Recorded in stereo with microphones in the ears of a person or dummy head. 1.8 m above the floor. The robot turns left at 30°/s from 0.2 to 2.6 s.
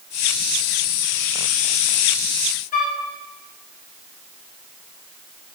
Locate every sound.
2.7 s a flute: 30° left (ahead or behind), 1.4 m